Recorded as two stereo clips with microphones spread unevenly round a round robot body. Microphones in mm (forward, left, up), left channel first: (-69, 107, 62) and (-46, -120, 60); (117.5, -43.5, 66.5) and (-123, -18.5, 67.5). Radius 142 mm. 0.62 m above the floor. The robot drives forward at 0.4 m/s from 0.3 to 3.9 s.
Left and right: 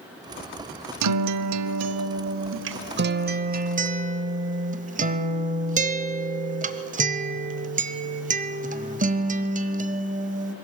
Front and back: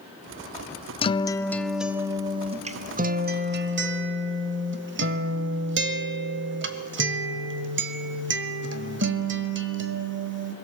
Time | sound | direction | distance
1.0 | a guitar | 75° right | 0.8 m